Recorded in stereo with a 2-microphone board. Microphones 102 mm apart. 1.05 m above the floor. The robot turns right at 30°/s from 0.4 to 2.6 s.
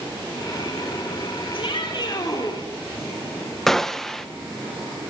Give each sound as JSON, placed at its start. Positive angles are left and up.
{"t": 1.5, "sound": "a shout", "azimuth_deg": 115, "distance_m": 4.0}
{"t": 3.7, "sound": "a gunshot", "side_deg": 5, "distance_m": 0.9}